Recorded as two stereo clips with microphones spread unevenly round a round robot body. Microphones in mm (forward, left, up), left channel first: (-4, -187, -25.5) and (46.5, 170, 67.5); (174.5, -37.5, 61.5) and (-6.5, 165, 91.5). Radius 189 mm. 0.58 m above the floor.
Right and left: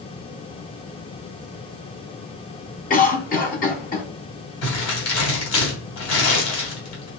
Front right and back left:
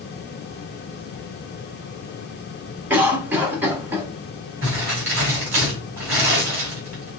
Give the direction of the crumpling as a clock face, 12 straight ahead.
5 o'clock.